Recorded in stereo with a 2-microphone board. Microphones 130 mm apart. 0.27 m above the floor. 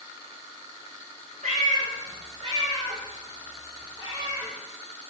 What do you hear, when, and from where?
1.4 s a cat meowing: 90° right, 0.5 m; by 4.5 s 25° right (ahead or behind), 1.8 m